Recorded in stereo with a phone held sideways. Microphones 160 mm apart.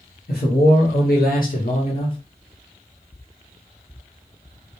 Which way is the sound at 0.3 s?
80° left.